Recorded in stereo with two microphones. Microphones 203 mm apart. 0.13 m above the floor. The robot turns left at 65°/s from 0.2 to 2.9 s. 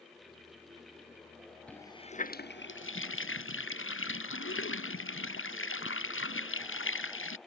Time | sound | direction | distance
1.7 | a running tap | 175° left | ?